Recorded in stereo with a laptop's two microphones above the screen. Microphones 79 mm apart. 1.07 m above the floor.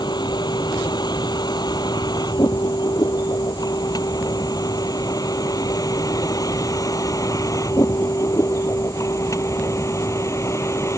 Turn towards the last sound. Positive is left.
turn(degrees=35)  # may be behind; listen again after turning